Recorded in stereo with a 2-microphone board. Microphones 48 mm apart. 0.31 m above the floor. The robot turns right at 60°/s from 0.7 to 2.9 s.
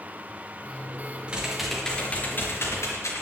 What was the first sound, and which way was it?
Typing on a keyboard, 20° right.